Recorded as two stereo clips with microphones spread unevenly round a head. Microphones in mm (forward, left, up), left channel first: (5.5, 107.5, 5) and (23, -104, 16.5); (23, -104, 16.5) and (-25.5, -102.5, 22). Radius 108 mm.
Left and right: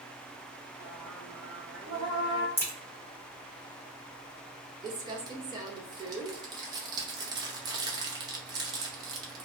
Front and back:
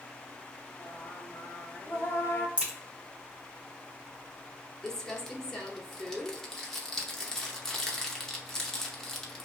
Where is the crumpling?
85° right, 0.6 m.